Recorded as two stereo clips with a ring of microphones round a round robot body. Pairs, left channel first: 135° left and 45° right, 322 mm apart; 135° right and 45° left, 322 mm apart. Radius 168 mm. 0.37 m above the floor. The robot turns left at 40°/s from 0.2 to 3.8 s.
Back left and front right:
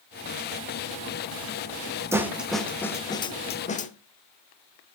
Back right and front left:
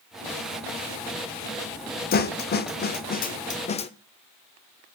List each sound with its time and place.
2.1 s a snare drum: 120° right, 0.8 m; by 3.9 s 175° left, 0.8 m